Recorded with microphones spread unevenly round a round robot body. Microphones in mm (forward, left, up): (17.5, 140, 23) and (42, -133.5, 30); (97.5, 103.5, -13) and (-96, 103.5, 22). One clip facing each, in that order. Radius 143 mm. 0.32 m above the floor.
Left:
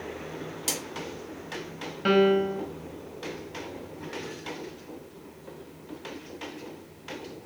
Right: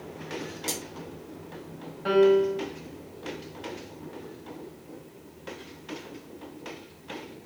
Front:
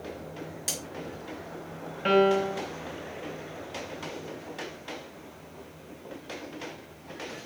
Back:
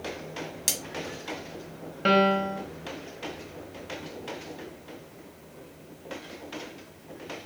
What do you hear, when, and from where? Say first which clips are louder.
0.7 s cutlery clinking: even, even; 165° left, 1.6 m
2.0 s a piano: right 2 dB, front 1 dB; 135° left, 0.8 m